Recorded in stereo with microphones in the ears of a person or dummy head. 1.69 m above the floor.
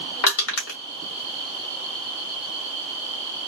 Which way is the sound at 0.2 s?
85° left.